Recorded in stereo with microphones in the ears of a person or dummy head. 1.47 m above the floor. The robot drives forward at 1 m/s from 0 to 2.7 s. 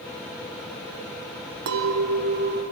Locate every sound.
1.7 s a clink: 55° right (ahead or behind), 0.7 m; by 2.6 s 40° right (ahead or behind), 0.9 m